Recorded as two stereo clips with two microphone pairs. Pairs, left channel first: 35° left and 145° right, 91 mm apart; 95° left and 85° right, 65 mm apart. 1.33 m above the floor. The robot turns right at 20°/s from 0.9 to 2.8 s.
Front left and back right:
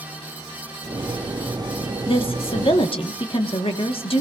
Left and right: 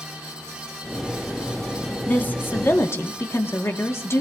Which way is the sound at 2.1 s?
30° left.